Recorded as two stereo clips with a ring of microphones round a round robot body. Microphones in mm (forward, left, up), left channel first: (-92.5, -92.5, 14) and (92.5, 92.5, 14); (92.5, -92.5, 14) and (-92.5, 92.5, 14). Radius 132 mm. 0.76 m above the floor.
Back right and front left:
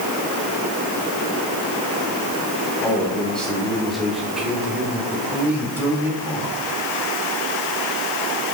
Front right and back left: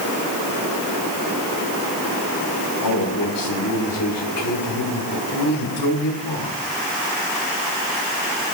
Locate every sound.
2.8 s a man speaking: 50° right, 5 m; by 6.6 s 35° right, 7.5 m